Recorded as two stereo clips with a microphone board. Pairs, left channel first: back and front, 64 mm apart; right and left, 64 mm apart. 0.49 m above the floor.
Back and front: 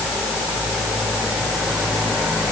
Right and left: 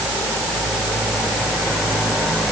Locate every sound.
Only background noise.